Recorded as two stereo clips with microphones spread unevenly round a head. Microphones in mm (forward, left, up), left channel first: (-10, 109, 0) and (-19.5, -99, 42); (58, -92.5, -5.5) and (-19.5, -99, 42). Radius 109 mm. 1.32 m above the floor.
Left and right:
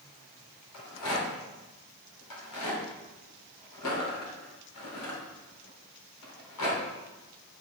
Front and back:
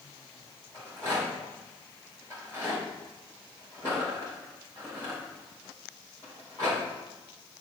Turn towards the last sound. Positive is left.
turn(degrees=90)